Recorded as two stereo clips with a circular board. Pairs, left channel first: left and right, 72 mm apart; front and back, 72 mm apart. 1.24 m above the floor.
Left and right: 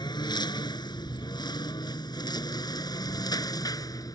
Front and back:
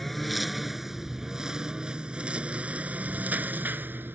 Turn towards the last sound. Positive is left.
turn(degrees=120)